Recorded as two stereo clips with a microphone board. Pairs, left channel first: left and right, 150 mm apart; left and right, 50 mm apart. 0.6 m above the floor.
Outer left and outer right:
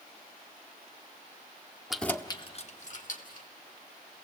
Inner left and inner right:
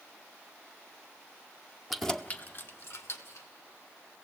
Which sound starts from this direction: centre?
Keys jangling, at 1.9 s.